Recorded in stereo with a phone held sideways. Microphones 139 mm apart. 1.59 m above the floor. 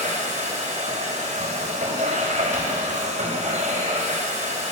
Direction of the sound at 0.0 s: 55° right (ahead or behind).